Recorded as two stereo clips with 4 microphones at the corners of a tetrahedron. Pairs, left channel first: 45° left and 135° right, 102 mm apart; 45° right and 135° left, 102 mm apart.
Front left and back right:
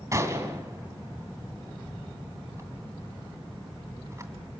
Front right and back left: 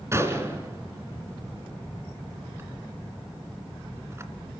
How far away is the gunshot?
About 2 m.